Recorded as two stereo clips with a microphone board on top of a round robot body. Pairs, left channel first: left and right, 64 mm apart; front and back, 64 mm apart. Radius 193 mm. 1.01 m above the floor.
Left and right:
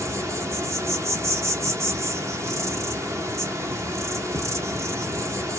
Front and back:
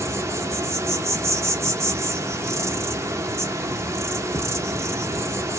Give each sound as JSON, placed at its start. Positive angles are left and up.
{"t": 0.0, "sound": "an insect", "azimuth_deg": -135, "distance_m": 1.1}